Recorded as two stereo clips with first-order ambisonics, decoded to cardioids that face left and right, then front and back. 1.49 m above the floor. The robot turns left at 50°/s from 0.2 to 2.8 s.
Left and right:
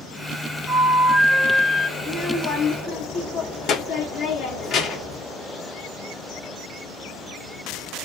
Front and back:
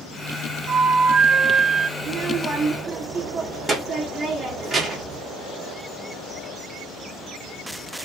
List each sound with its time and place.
0.7 s a flute: 175° right, 0.6 m; by 1.9 s 125° left, 0.6 m
2.0 s a child speaking: 150° left, 0.8 m; by 5.2 s 110° left, 0.8 m